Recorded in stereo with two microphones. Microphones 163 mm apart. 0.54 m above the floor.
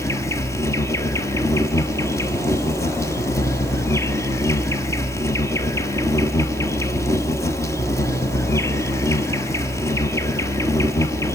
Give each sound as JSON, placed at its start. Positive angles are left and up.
{"t": 0.0, "sound": "an insect", "side_deg": 15, "distance_m": 1.1}